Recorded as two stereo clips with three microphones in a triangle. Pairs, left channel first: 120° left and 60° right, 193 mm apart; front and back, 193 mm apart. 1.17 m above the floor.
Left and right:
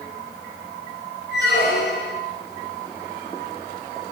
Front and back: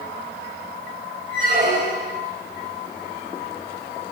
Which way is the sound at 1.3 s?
140° left.